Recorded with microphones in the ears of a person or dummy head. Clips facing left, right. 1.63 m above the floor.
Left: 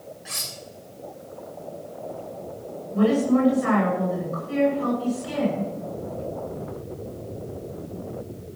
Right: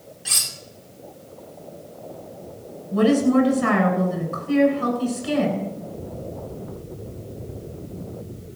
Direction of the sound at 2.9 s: 70° right (ahead or behind).